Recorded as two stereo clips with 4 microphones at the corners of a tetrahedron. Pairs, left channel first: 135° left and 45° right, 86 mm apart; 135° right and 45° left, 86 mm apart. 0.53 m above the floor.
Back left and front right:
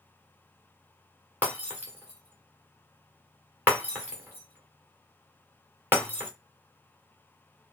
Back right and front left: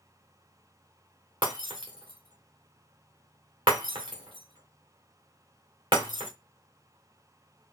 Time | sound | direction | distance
1.4 | breaking glass | 20° left | 2 m